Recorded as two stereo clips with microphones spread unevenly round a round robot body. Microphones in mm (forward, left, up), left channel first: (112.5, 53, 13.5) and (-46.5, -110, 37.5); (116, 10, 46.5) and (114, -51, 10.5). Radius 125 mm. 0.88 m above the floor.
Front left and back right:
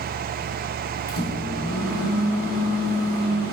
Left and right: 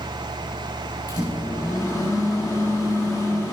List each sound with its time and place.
1.1 s a microwave: 125° left, 3.5 m